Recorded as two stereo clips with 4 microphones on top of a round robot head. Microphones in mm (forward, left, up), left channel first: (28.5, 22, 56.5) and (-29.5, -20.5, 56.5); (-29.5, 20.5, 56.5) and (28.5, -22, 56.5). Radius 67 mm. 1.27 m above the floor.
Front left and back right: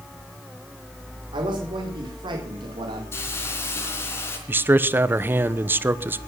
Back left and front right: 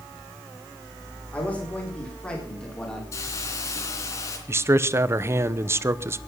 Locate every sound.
1.3 s a man speaking: 145° right, 4 m; by 3.0 s 135° right, 3.5 m
3.1 s a hiss: 95° left, 3.5 m
4.5 s a man speaking: 85° right, 1.0 m